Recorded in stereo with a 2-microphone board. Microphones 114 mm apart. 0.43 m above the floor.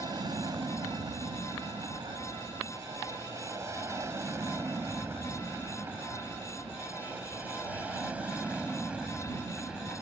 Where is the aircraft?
35° right (ahead or behind); by 10.0 s 5° right (ahead or behind).